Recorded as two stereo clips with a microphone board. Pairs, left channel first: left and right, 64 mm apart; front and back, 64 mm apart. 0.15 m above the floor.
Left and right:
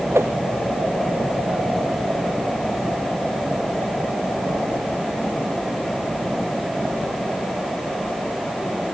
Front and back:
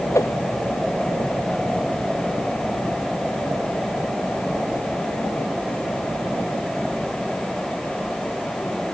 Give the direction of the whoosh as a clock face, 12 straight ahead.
1 o'clock.